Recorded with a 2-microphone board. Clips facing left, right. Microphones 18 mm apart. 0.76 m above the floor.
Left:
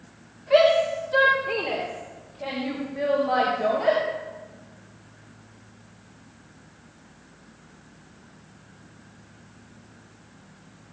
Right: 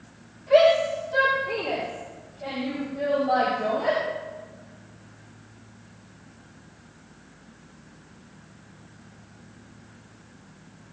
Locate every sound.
0.5 s a shout: 15° left (ahead or behind), 2.0 m; by 4.0 s 55° left (ahead or behind), 4.5 m